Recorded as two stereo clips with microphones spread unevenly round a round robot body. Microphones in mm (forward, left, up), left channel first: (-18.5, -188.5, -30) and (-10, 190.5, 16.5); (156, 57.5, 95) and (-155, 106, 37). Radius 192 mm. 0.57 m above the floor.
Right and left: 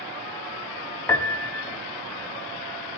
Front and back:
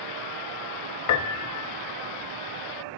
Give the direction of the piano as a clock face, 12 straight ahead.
12 o'clock.